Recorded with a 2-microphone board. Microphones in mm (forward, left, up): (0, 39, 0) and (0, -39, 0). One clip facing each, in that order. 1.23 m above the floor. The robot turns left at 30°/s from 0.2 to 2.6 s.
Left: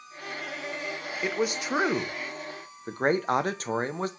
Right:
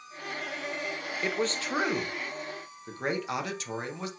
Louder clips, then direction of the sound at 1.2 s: Left 2 dB; 175° left.